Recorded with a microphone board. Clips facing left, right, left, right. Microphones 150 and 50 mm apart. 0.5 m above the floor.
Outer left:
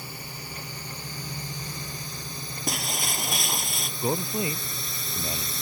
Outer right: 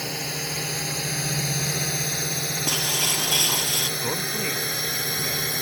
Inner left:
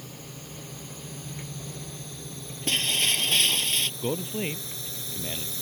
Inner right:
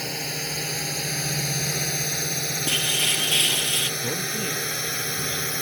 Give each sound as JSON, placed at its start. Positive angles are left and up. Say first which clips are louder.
{"t": 0.0, "sound": "a drone", "louder": "outer right 9 dB, inner right 12 dB", "side_deg": -80}
{"t": 2.7, "sound": "breaking glass", "louder": "outer left 1 dB, even", "side_deg": -5}
{"t": 4.0, "sound": "a man speaking", "louder": "outer left 5 dB, inner right 1 dB", "side_deg": 20}